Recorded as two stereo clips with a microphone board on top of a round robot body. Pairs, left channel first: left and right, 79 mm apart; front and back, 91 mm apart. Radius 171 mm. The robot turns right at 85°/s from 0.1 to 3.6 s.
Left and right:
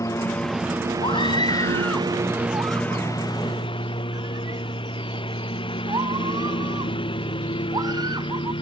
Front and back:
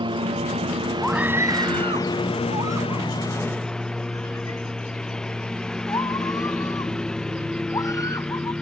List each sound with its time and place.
0.0 s a lawn mower: 145° left; by 8.6 s 80° left
1.0 s a scream: 85° left; by 8.5 s 55° right